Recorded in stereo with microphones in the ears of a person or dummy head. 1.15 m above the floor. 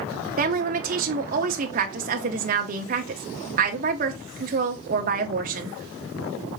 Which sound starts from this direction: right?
A woman speaking, at 0.4 s.